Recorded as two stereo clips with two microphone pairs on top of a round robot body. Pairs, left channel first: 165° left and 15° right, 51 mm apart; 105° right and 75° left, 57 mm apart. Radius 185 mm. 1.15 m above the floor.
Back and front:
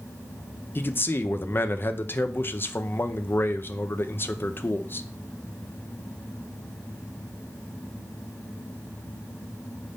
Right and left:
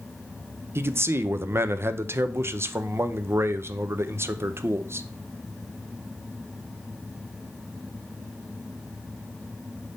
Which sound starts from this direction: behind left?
A man speaking, at 0.8 s.